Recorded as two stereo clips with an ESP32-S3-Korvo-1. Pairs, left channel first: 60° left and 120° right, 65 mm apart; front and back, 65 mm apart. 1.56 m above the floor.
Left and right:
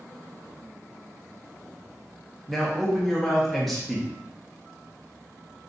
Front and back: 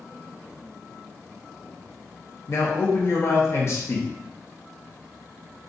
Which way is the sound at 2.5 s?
30° right.